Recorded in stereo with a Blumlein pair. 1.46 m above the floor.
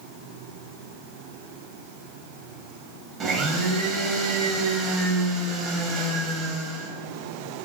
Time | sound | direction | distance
3.2 | a blender | 25° right | 0.6 m